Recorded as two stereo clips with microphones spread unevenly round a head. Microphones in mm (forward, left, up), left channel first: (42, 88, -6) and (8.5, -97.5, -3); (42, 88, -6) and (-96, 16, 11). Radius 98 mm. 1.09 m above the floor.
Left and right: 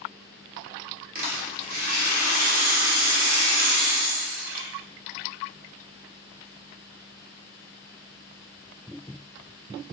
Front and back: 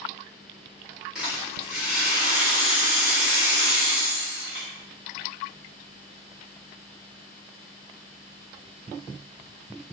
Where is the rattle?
70° right, 1.0 m.